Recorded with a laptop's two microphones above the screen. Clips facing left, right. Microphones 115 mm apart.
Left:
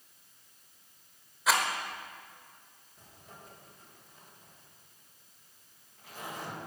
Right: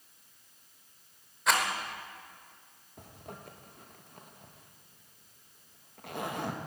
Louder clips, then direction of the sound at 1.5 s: Even; centre (ahead or behind).